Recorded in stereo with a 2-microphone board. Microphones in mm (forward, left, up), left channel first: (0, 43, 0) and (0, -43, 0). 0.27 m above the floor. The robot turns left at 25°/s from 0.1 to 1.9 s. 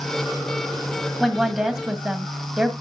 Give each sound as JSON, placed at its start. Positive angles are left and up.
{"t": 1.2, "sound": "a woman speaking", "side_deg": 5, "distance_m": 1.7}